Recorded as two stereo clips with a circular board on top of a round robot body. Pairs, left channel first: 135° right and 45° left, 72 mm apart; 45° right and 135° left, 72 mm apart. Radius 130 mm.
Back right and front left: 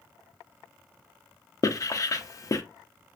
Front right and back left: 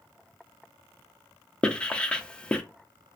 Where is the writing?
115° right, 0.6 m.